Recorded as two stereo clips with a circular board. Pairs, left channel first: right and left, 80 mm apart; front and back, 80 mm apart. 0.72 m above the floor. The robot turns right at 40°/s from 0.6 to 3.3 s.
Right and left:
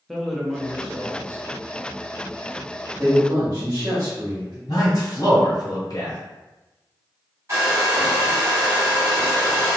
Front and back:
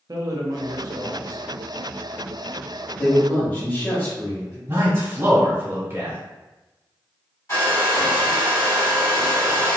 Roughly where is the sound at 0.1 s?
Behind.